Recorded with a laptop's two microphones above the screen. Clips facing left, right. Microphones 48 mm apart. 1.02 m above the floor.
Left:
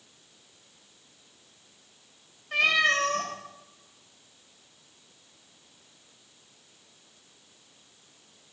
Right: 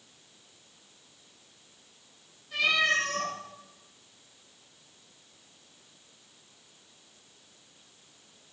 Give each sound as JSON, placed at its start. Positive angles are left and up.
{"t": 2.5, "sound": "a cat meowing", "side_deg": 60, "distance_m": 2.5}